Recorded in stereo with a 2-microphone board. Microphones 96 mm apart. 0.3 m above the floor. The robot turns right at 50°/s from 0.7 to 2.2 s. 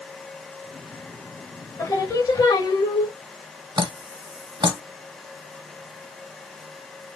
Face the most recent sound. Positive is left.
turn(degrees=-55)  # may be behind; listen again after turning